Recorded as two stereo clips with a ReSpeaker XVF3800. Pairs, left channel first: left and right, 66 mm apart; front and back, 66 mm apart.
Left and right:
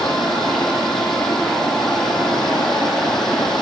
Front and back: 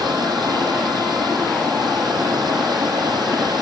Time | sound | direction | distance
0.0 | running water | 175° left | 5.5 m